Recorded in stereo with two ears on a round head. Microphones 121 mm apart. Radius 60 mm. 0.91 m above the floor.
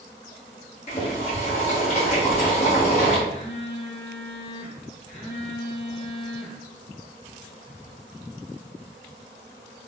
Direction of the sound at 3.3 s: 45° left (ahead or behind).